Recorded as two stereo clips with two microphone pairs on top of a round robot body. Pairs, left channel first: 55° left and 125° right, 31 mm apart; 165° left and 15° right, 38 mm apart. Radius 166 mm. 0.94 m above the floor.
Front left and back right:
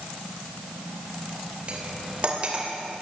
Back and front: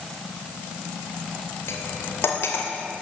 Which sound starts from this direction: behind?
Cutlery clinking, at 1.7 s.